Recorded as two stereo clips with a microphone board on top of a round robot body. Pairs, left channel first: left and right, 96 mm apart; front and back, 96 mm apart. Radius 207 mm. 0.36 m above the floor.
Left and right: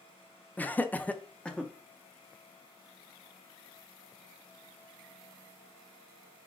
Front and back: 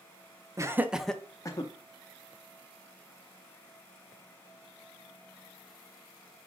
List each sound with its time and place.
0.6 s laughter: 150° left, 0.9 m; by 1.7 s 10° left, 0.9 m